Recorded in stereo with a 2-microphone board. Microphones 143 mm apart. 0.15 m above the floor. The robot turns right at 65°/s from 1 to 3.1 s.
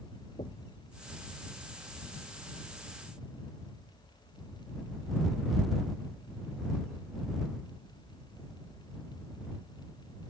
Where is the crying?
No crying in this recording.